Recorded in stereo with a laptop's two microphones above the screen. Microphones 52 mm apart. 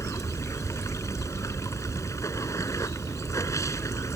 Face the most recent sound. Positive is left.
turn(degrees=90)